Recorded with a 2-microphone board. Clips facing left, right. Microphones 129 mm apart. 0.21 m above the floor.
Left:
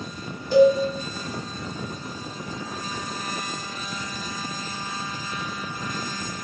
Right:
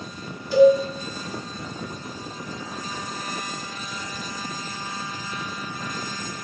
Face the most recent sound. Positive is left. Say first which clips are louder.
# right 1 dB
turn(degrees=45)  # may be behind; listen again after turning